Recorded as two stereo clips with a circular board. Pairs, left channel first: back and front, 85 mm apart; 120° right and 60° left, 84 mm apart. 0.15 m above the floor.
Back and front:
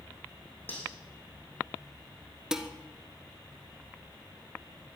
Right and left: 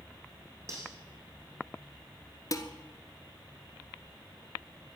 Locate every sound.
0.7 s cutlery clinking: 110° left, 5 m
2.5 s dishes clattering: 80° right, 1.3 m